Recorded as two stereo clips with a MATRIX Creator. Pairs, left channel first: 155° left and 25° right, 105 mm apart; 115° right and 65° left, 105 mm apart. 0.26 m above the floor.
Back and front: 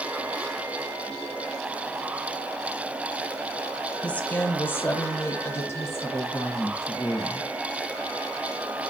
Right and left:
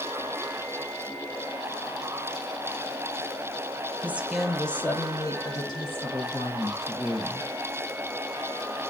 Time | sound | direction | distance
4.0 | a woman speaking | 100° left | 0.9 m